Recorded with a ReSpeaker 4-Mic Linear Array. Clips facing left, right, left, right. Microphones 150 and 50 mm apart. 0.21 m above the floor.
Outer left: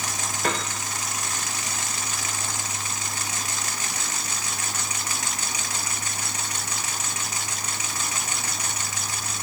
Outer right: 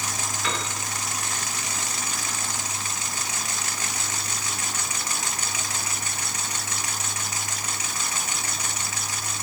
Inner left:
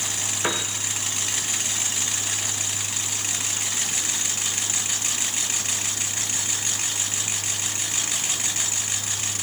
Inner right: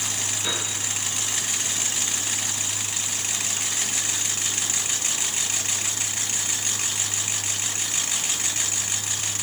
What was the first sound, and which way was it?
A piano, 50° left (ahead or behind).